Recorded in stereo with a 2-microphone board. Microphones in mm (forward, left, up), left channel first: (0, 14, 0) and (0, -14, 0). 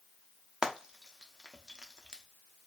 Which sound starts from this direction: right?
Frying, at 0.6 s.